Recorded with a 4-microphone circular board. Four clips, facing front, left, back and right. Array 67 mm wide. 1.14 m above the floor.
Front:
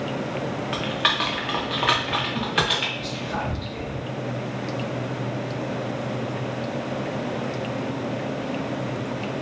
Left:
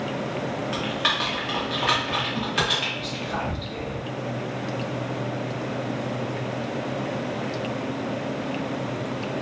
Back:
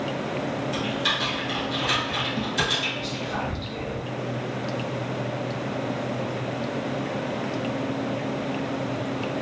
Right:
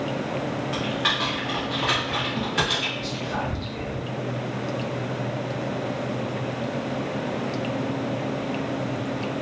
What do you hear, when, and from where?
0.7 s typing on a keyboard: 10° left, 0.6 m
3.0 s whispering: 85° left, 0.7 m